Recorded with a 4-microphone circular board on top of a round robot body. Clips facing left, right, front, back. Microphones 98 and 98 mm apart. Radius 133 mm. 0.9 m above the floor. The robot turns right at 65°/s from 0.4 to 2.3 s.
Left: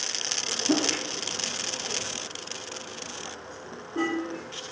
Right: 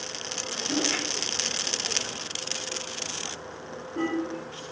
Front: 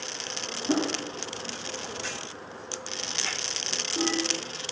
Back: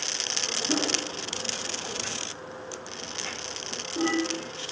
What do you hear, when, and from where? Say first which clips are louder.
0.7 s a whoosh: left 4 dB, front 3 dB; 60° left, 2.5 m; by 0.9 s 75° left, 2.5 m